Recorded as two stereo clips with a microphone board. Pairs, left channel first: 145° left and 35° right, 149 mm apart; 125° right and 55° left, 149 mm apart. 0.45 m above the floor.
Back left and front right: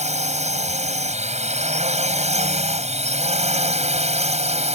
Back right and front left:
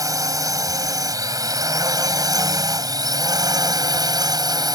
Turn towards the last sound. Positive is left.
turn(degrees=-5)